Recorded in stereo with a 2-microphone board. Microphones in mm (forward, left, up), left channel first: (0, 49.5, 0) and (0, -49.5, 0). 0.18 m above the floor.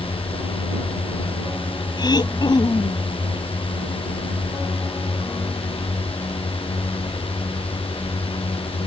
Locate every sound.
0.0 s a drone: 75° left (ahead or behind)
2.0 s throat clearing: 50° left (ahead or behind)